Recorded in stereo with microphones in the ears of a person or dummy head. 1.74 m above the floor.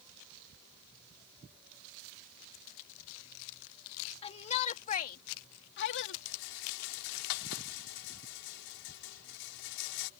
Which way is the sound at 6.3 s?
80° left.